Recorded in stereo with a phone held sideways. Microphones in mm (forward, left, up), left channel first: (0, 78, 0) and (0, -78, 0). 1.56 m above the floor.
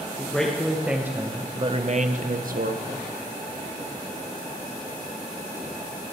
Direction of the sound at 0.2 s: 5° left (ahead or behind).